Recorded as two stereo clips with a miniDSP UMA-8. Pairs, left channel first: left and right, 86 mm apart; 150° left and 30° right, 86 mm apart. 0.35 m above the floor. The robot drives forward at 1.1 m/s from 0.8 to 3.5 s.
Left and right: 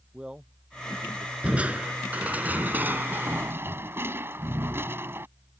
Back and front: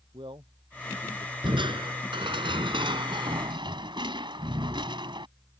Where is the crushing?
15° right; by 5.3 s 30° right.